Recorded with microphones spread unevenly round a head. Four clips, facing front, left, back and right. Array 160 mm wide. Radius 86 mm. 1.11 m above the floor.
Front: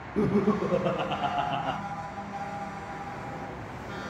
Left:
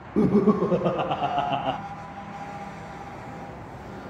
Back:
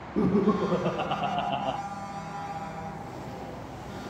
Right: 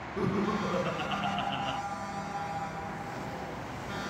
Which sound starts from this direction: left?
Laughter, at 0.2 s.